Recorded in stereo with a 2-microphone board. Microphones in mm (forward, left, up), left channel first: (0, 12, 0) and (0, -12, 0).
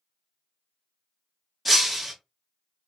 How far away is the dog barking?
I don't hear a dog barking.